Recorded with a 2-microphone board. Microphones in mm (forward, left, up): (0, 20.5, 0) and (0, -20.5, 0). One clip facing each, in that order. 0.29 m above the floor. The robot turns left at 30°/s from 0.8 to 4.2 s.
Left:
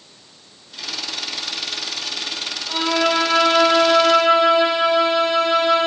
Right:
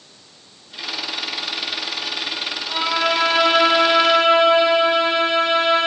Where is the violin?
15° left, 3.5 m; by 5.9 s 30° right, 3.5 m.